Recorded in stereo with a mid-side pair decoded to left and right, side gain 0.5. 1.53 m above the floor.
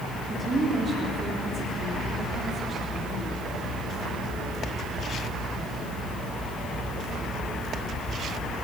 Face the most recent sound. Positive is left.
turn(degrees=-40)